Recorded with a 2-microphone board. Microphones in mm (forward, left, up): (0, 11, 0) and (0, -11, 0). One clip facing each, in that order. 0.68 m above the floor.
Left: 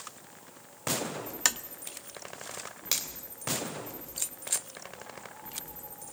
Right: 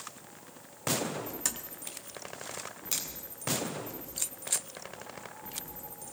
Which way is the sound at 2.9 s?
75° left (ahead or behind).